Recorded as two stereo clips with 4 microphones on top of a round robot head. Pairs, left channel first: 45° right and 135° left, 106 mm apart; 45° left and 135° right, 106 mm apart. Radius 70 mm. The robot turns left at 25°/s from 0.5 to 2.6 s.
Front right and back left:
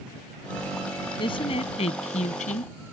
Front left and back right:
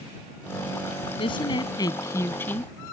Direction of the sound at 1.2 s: 5° left.